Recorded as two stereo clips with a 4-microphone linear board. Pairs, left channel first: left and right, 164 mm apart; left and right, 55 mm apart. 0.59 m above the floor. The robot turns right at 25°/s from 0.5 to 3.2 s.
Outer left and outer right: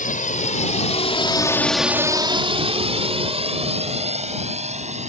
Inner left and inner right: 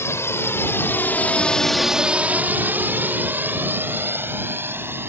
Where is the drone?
55° left (ahead or behind); by 5.1 s 45° right (ahead or behind).